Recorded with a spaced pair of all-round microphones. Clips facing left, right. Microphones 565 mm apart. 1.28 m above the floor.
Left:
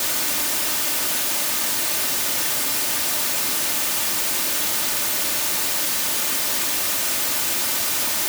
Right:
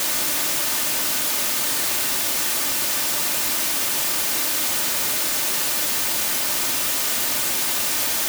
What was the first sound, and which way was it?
Only background noise.